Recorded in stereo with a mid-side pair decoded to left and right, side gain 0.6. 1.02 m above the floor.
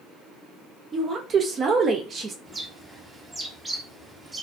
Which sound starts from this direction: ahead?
A bird, at 2.5 s.